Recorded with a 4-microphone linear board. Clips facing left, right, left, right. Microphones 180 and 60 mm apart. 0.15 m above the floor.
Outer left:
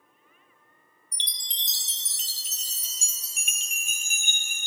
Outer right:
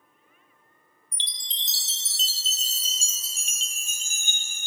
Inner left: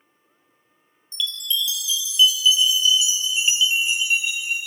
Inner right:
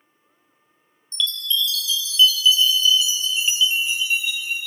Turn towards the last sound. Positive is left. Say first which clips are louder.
# outer right 1 dB, inner right 2 dB
turn(degrees=15)  # may be behind; listen again after turning